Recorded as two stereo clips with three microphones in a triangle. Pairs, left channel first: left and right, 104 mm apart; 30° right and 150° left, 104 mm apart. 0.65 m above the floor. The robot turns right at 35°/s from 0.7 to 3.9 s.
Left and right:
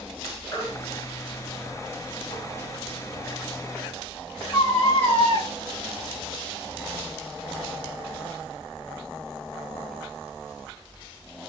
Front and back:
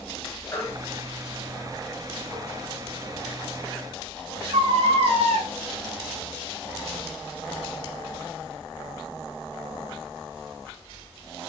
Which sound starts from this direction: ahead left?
A baby crying, at 0.5 s.